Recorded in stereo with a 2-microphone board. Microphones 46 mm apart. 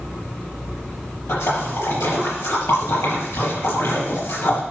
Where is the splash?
80° left, 6 m.